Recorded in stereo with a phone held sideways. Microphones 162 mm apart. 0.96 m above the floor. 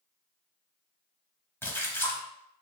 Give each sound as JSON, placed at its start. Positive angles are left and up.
{"t": 1.6, "sound": "a splash", "side_deg": 15, "distance_m": 0.8}